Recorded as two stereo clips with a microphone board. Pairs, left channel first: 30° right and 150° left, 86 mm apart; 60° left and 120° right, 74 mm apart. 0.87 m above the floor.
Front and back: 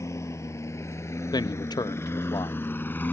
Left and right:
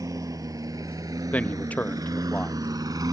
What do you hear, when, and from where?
0.0 s a lawn mower: 85° right; by 3.1 s 95° right
1.3 s a man speaking: 5° right